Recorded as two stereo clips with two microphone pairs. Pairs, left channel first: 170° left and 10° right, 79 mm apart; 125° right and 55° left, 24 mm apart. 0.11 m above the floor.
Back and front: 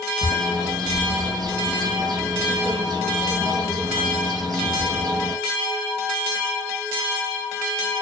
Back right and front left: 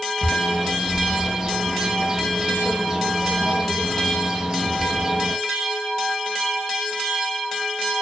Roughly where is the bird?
Ahead.